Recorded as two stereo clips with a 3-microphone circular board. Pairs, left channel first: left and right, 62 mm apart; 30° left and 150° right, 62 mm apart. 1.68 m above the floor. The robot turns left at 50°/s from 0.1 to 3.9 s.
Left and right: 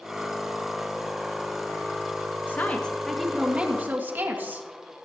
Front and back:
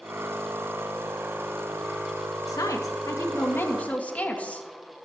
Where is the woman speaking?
35° left, 2.5 m; by 4.7 s 35° right, 2.5 m.